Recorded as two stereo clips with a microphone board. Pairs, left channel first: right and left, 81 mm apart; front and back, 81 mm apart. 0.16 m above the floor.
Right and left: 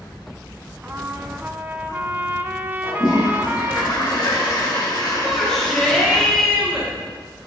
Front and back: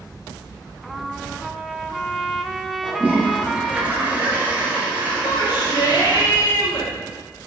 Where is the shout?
5° right, 3 m.